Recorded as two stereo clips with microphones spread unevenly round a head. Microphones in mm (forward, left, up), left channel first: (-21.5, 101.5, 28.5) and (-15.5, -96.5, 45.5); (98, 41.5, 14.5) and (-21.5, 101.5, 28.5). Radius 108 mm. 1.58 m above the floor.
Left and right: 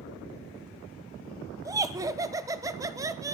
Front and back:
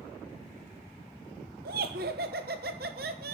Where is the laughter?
165° right, 1.1 m.